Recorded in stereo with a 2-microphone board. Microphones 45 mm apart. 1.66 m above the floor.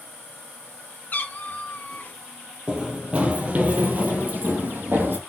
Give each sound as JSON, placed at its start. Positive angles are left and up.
{"t": 1.1, "sound": "a cat meowing", "side_deg": 40, "distance_m": 1.1}
{"t": 2.7, "sound": "running footsteps", "side_deg": -20, "distance_m": 2.0}